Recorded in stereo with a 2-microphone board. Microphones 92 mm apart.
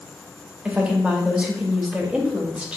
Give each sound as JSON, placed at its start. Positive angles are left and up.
{"t": 0.7, "sound": "a woman speaking", "side_deg": -10, "distance_m": 0.6}